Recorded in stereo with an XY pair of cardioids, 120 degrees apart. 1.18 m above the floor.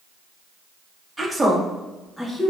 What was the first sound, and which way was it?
A woman speaking, 10° right.